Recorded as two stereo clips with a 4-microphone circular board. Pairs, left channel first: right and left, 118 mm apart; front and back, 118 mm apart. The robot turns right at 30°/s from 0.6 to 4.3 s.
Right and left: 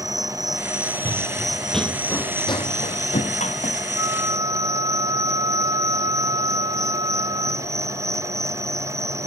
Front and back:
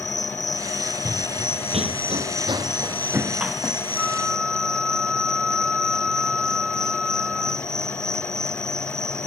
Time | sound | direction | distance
0.0 | an insect | 5° left | ?
1.1 | running footsteps | 120° left | ?
4.0 | a flute | 90° left | ?